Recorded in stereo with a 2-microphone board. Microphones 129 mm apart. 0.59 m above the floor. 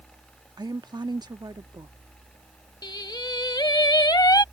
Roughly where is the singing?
Left.